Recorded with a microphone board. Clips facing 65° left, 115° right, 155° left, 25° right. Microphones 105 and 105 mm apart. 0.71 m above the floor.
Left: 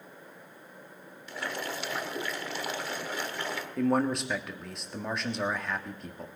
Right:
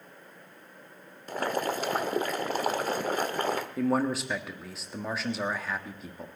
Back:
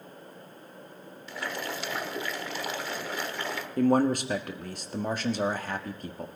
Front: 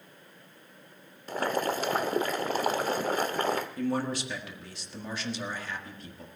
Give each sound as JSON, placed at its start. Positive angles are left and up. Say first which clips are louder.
{"t": 1.3, "sound": "boiling", "louder": "right 7 dB, front 7 dB", "azimuth_deg": -70, "distance_m": 1.1}
{"t": 3.8, "sound": "a man speaking", "louder": "left 2 dB, back 7 dB", "azimuth_deg": 160, "distance_m": 1.5}